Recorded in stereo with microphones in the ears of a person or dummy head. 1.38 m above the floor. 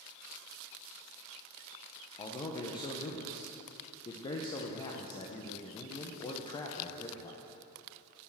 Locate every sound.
2.2 s a man speaking: 25° left (ahead or behind), 0.8 m